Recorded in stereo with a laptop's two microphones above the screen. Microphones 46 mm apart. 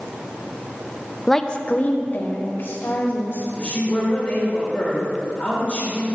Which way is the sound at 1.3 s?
5° left (ahead or behind).